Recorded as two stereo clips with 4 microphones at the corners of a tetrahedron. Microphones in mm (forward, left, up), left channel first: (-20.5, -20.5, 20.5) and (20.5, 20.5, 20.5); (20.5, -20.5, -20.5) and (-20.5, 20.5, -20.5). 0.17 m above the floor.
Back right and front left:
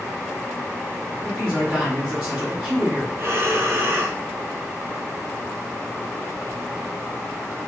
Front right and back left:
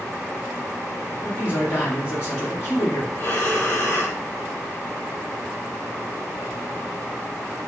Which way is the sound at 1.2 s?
20° right.